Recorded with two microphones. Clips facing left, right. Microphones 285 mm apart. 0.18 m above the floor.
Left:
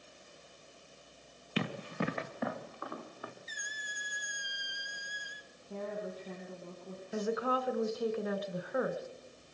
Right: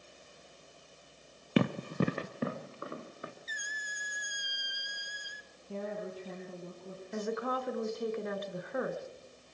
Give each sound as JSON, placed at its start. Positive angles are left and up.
{"t": 1.6, "sound": "running footsteps", "side_deg": -55, "distance_m": 0.9}
{"t": 3.5, "sound": "a squeak", "side_deg": -20, "distance_m": 0.6}
{"t": 5.7, "sound": "a woman speaking", "side_deg": -70, "distance_m": 4.0}
{"t": 7.1, "sound": "a woman speaking", "side_deg": 5, "distance_m": 1.6}